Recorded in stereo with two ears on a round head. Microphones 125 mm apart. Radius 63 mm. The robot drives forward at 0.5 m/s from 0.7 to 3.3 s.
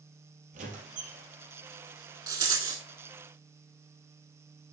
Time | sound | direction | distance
0.5 | a squeak | 55° right (ahead or behind) | 4 m
2.3 | a rattle | 30° right (ahead or behind) | 2.5 m